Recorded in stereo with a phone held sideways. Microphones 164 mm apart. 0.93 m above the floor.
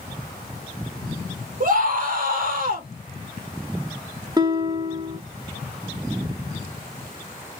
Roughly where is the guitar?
Right.